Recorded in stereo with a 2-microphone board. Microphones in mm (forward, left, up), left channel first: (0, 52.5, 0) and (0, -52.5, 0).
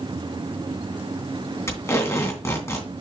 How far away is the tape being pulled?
About 2.5 m.